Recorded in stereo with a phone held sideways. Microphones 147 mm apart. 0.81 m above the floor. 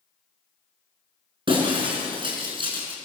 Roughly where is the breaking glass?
Right.